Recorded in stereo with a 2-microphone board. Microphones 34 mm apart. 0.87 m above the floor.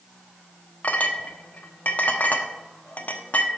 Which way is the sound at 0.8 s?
55° left (ahead or behind).